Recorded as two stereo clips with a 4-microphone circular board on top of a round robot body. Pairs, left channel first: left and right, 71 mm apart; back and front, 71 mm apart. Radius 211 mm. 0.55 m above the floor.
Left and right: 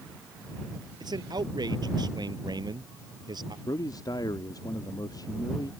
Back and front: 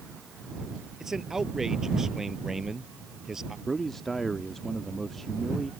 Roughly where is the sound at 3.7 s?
Left.